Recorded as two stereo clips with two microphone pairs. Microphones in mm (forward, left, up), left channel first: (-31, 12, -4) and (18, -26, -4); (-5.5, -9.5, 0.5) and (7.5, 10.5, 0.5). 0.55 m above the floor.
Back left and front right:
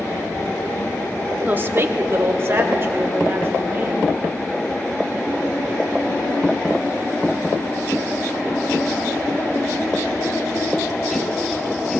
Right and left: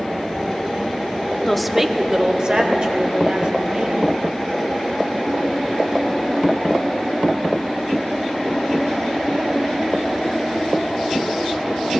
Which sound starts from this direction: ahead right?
A woman speaking, at 1.5 s.